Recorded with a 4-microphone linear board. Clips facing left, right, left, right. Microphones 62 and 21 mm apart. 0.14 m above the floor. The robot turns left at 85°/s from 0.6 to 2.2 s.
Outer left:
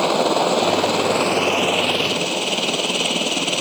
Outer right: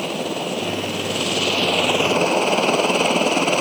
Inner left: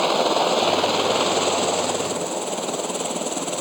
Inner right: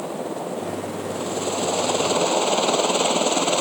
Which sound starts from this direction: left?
A helicopter, at 0.0 s.